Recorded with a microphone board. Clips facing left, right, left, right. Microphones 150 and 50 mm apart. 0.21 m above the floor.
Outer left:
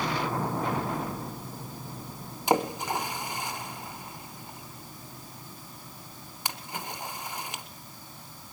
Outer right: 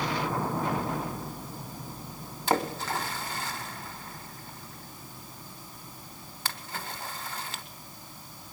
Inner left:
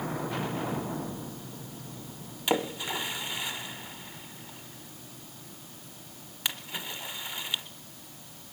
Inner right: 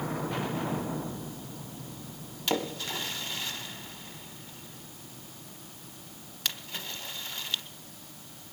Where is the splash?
15° left (ahead or behind), 0.8 m.